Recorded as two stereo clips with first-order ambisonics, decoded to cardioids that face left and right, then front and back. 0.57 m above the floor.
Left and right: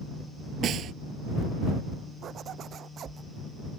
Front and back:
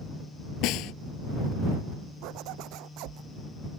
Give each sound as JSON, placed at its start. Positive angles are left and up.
{"t": 0.6, "sound": "a snare drum", "azimuth_deg": -35}
{"t": 2.2, "sound": "a zipper", "azimuth_deg": -150}